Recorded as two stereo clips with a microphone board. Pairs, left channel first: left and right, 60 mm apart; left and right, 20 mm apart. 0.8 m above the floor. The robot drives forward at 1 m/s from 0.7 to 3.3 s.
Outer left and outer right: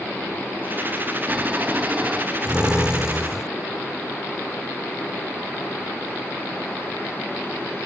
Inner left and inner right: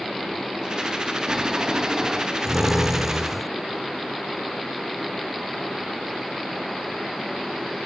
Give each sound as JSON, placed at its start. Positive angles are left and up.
{"t": 1.3, "sound": "snoring", "side_deg": -25}